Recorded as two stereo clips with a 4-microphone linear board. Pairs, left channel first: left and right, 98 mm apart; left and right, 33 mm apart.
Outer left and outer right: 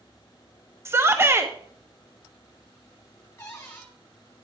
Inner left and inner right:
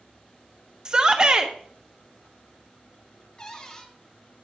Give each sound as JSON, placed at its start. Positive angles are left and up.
{"t": 0.8, "sound": "a shout", "side_deg": -25, "distance_m": 0.6}
{"t": 3.4, "sound": "a cupboard door", "side_deg": 25, "distance_m": 1.8}